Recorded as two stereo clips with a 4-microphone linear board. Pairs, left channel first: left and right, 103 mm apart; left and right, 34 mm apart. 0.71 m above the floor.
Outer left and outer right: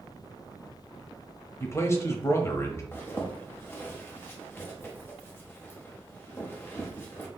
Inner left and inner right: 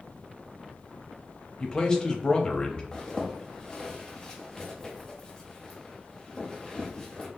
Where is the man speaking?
25° left (ahead or behind), 0.7 m.